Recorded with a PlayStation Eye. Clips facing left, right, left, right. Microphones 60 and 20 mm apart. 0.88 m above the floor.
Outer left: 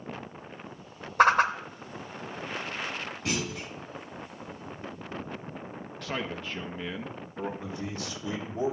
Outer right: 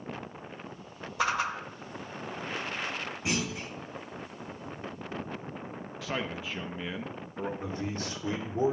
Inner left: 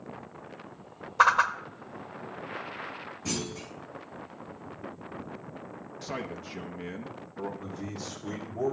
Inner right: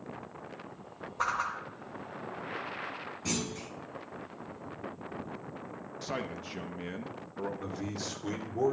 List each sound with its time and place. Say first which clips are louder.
1.2 s a whoosh: outer left 8 dB, inner left 10 dB; 50° left (ahead or behind), 0.7 m
3.2 s a clunk: even, inner left 1 dB; 15° right (ahead or behind), 6 m
6.0 s a man speaking: even, even; 5° right (ahead or behind), 0.8 m
7.6 s a man speaking: outer right 1 dB, inner right 1 dB; 40° right (ahead or behind), 2.5 m